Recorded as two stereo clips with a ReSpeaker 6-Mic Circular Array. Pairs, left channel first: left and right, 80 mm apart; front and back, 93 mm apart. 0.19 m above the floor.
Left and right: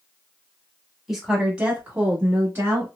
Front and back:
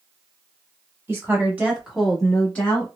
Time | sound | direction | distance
1.1 | a woman speaking | 170° right | 1.2 m